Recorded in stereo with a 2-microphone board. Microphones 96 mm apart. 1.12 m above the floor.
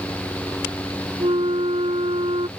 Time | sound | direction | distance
1.2 | a flute | 80° right | ?